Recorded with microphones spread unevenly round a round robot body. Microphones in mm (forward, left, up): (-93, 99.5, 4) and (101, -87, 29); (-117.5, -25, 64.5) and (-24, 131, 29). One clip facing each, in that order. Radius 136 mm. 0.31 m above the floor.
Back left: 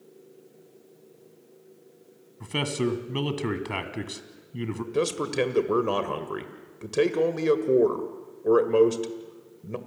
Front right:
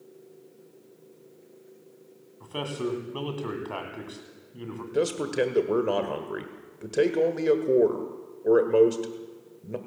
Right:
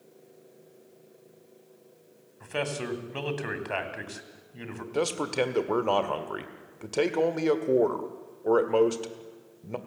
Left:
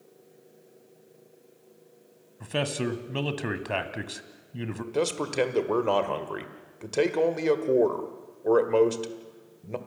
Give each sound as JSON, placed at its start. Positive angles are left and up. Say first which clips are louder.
{"t": 2.4, "sound": "a man speaking", "louder": "back left 4 dB, left 3 dB", "azimuth_deg": 95, "distance_m": 2.0}
{"t": 4.9, "sound": "a man speaking", "louder": "front right 1 dB, left 1 dB", "azimuth_deg": 95, "distance_m": 1.5}